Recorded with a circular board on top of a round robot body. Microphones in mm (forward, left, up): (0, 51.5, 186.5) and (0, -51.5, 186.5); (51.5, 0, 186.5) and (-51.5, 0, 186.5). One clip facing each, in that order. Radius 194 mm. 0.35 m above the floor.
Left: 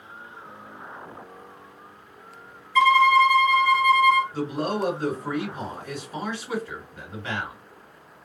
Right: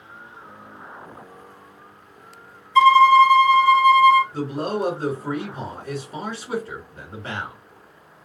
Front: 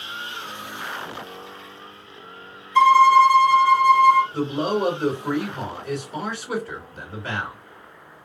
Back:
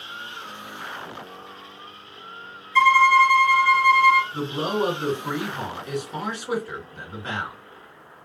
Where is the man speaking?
130° right, 2 m.